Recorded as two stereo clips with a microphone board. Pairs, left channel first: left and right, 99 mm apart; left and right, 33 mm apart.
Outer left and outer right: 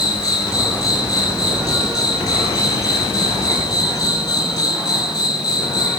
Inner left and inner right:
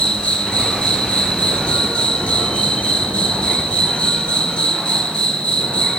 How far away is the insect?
About 1.8 m.